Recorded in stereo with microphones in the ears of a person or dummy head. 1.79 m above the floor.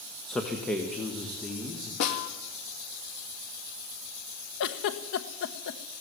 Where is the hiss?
I don't hear a hiss.